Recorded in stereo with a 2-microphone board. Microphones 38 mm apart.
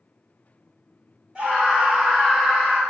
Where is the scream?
20° right (ahead or behind), 1.6 m; by 2.8 s 15° left (ahead or behind), 1.4 m.